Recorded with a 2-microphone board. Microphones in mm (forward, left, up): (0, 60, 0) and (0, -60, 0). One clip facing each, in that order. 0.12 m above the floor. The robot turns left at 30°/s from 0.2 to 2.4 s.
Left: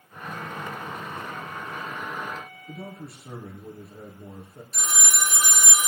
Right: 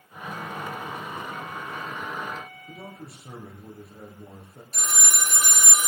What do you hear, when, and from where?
2.7 s a man speaking: 5° right (ahead or behind), 3.5 m
4.7 s a phone ringing: 50° right (ahead or behind), 1.8 m